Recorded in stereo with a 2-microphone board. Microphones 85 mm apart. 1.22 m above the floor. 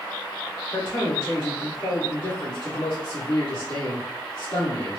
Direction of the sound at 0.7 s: 70° left (ahead or behind).